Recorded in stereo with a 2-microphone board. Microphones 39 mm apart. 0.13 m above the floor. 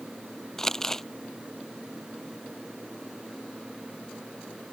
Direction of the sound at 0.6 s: 10° left (ahead or behind).